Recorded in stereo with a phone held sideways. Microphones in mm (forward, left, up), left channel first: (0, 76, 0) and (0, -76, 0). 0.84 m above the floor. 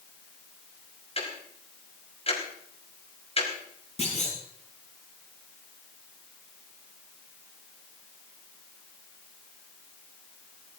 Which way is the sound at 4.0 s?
50° left (ahead or behind).